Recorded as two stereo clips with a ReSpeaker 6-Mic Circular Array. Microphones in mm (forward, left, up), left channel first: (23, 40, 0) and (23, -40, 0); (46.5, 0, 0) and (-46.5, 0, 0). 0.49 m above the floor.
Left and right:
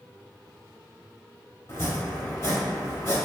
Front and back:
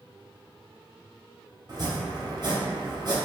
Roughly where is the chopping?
Behind left.